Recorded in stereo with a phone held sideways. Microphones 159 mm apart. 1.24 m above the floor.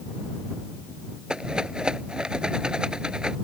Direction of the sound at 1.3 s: 5° right (ahead or behind).